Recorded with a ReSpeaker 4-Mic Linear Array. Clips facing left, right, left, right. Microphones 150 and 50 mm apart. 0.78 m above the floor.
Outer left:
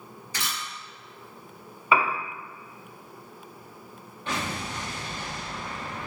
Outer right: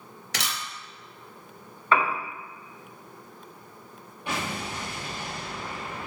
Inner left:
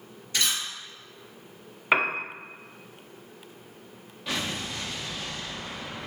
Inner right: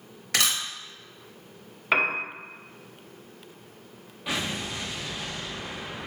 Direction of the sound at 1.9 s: 10° left (ahead or behind).